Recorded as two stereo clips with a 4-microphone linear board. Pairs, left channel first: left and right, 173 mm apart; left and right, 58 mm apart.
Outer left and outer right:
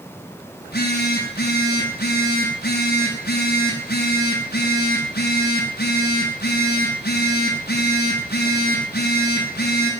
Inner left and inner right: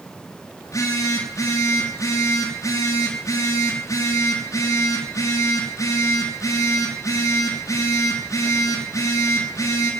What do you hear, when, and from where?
0.6 s a phone buzzing: 70° left (ahead or behind), 7.5 m